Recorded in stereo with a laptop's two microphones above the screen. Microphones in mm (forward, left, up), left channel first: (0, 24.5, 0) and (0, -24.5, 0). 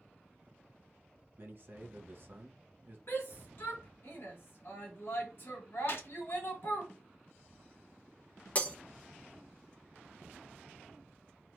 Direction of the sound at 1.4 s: 50° right (ahead or behind).